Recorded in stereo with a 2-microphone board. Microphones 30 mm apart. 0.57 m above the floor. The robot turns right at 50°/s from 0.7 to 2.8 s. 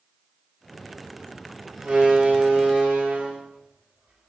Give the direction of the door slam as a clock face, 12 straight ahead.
5 o'clock.